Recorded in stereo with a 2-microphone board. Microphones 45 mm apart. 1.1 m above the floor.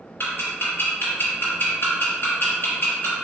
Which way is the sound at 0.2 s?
50° left (ahead or behind).